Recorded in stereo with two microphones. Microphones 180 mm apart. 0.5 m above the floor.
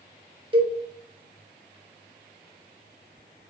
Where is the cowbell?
30° right (ahead or behind), 0.7 m.